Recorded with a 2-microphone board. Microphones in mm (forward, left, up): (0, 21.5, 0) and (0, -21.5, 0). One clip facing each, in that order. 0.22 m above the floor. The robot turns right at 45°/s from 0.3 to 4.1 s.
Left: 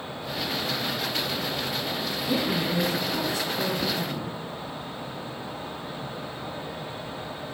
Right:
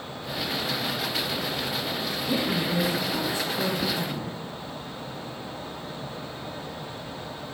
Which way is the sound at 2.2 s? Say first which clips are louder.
Even; 165° left.